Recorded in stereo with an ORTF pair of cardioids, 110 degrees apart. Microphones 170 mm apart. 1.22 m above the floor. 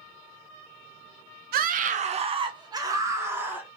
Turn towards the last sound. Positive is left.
turn(degrees=-10)